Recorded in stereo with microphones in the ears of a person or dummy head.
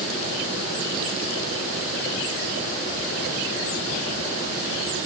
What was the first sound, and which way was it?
Only background noise.